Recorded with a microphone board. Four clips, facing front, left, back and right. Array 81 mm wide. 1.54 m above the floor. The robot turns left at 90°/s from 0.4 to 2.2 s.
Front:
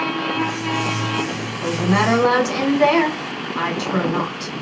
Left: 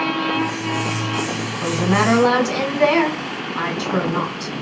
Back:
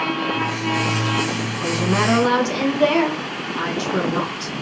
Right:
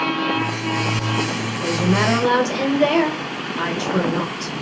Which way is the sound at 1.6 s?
95° left.